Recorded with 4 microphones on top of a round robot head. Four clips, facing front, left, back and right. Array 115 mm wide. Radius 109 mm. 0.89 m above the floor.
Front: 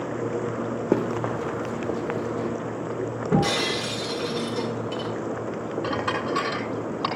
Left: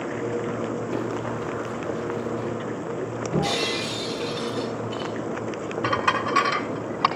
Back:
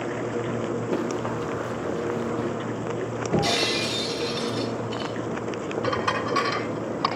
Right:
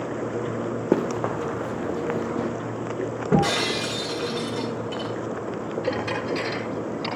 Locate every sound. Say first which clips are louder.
0.9 s running footsteps: right 4 dB, front 6 dB; 55° right, 3.5 m; by 2.5 s 85° right, 2.5 m
3.3 s breaking glass: right 4 dB, front 1 dB; 60° right, 6.5 m
5.8 s dishes clattering: left 5 dB, back 2 dB; 90° left, 6 m